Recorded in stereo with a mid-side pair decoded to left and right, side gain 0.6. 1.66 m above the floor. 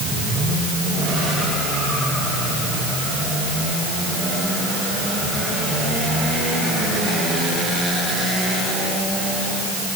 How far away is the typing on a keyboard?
I don't hear typing on a keyboard.